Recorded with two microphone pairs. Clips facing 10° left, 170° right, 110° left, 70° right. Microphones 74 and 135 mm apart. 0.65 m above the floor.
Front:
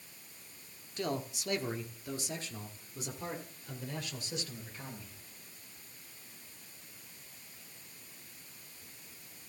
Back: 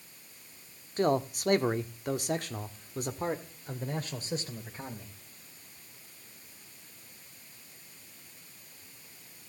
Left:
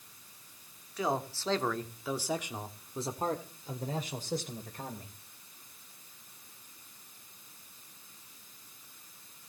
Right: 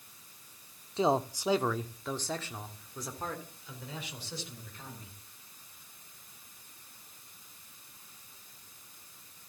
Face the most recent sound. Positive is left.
turn(degrees=140)